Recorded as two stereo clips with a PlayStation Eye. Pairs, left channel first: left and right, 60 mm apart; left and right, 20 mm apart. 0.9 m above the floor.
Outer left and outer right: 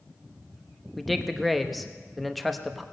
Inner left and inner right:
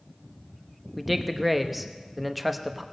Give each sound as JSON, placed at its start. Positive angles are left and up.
{"t": 1.0, "sound": "a man speaking", "side_deg": 0, "distance_m": 0.9}